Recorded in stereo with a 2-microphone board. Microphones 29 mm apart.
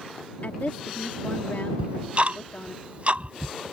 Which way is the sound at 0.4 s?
70° left (ahead or behind).